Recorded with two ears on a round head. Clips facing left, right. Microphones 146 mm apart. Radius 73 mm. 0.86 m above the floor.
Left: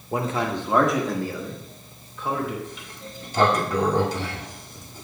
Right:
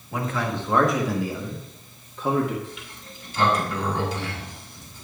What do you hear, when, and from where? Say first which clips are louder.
0.1 s a man speaking: left 2 dB; 30° left (ahead or behind), 1.0 m; by 2.5 s 40° right (ahead or behind), 1.7 m
2.6 s a sliding door: left 2 dB; 35° left (ahead or behind), 1.4 m